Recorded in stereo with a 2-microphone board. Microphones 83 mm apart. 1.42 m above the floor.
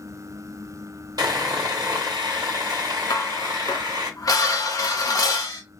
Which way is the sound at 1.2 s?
50° right (ahead or behind).